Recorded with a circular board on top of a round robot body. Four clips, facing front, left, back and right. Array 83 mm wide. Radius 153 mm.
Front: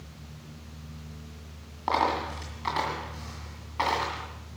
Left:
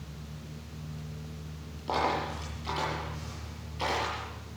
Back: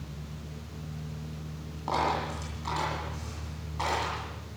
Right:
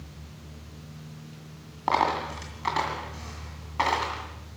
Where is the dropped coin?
70° right, 2 m.